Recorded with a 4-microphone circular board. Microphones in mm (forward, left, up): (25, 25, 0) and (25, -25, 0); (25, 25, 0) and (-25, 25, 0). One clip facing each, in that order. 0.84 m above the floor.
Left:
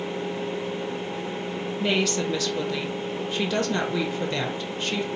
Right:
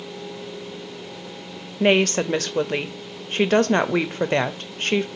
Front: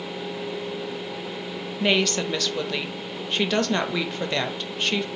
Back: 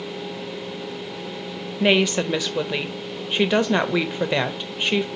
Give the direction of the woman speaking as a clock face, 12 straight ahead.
4 o'clock.